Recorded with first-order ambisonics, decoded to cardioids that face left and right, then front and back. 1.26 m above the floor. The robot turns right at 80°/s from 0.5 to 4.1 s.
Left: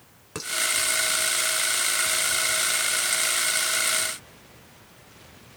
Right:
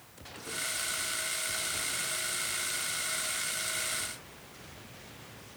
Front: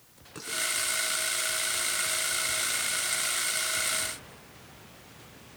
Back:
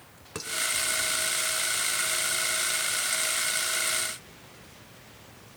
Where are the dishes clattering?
120° left, 4 m; by 0.5 s 125° left, 4 m.